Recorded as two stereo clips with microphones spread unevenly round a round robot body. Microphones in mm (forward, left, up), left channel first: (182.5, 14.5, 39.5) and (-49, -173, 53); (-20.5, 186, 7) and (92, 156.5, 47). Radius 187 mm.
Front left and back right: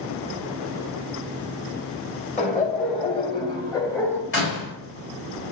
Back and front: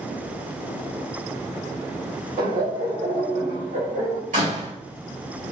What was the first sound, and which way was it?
Laughter, 30° right.